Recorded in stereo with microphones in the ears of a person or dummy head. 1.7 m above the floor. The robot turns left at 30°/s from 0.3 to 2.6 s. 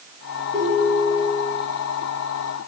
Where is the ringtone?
25° left (ahead or behind), 2.5 m; by 1.5 s 55° left (ahead or behind), 2.5 m.